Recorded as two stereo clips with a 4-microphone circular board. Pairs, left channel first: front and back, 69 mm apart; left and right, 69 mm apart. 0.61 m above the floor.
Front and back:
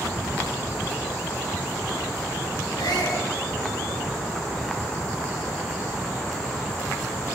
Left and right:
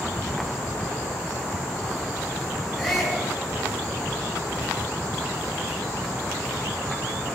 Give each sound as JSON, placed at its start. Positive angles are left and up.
{"t": 2.8, "sound": "a shout", "azimuth_deg": 0, "distance_m": 9.5}